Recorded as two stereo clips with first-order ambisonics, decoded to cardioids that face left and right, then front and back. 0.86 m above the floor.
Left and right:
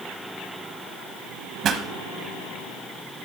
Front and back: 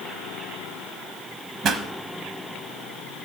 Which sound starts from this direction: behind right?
A pop, at 1.6 s.